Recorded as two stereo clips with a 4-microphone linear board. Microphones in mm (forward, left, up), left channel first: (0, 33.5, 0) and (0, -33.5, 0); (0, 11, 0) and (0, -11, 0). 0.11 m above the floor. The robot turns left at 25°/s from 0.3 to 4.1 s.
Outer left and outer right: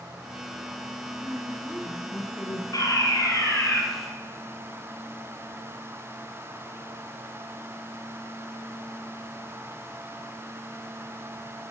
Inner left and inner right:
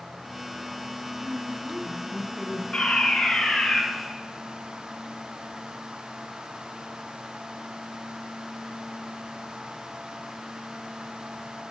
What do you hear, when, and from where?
1.2 s a woman speaking: 160° left, 5 m; by 2.6 s 120° left, 5 m
2.7 s a fire alarm: 60° left (ahead or behind), 4.5 m; by 3.8 s 45° left (ahead or behind), 4.5 m